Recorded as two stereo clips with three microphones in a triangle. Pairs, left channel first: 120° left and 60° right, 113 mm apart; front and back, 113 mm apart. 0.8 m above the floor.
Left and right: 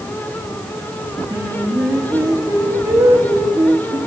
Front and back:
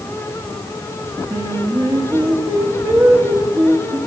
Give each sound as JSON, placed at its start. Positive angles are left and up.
{"t": 1.3, "sound": "singing", "azimuth_deg": -125, "distance_m": 1.2}